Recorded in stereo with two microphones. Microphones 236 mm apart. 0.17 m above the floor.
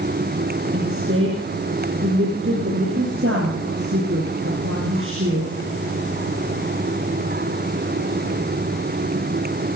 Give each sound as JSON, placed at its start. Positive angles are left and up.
{"t": 0.7, "sound": "a woman speaking", "side_deg": -60, "distance_m": 5.5}